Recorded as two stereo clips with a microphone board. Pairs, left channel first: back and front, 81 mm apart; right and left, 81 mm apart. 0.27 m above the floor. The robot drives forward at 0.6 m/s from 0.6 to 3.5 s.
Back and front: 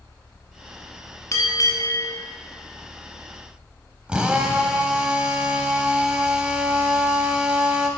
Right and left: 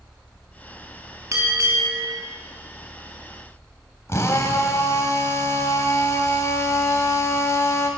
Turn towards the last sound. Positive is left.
turn(degrees=-70)